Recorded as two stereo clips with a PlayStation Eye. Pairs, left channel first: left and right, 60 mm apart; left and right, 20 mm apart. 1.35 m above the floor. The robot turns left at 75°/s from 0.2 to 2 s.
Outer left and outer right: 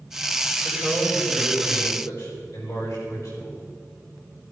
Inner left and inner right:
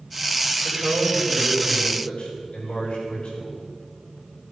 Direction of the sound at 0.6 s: 175° right.